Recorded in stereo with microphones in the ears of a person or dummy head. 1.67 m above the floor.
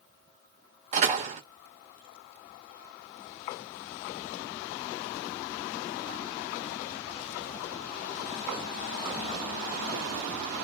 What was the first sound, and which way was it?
A door slam, 40° right (ahead or behind).